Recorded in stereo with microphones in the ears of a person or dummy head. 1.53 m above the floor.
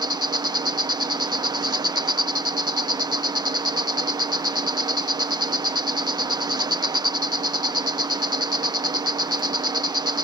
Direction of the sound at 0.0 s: 20° right (ahead or behind).